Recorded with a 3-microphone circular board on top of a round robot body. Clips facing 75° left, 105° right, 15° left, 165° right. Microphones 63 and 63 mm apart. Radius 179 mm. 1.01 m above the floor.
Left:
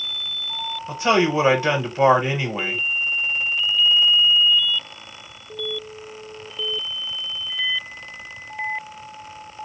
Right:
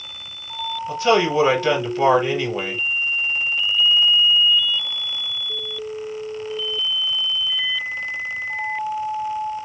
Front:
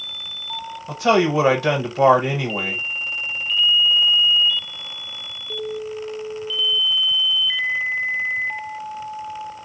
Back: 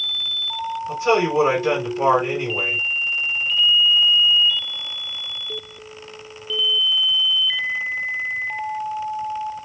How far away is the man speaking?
About 1.0 m.